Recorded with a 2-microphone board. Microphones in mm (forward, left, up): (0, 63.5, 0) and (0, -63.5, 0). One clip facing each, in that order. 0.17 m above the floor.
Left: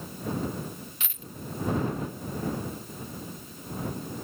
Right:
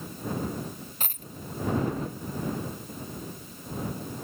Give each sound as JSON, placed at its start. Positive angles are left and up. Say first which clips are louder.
{"t": 1.0, "sound": "a dropped coin", "louder": "right 4 dB", "side_deg": -45}